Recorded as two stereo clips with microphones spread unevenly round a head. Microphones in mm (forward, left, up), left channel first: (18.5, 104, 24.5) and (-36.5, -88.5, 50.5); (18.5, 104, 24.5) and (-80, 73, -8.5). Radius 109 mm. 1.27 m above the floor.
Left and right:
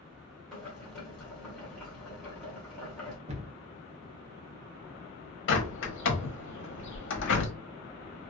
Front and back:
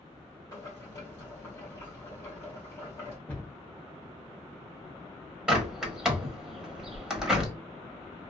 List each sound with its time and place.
0.5 s boiling: 25° right, 1.1 m
3.3 s a cupboard door: 55° right, 0.6 m
5.5 s a bird: 105° left, 1.1 m